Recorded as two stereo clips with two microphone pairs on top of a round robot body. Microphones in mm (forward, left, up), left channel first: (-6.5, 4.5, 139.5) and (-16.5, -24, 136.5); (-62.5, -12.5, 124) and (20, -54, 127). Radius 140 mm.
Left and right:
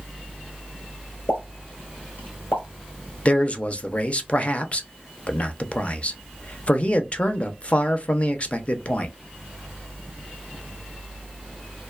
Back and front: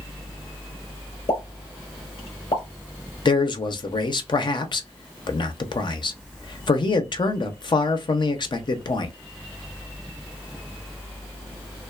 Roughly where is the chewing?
I don't hear chewing.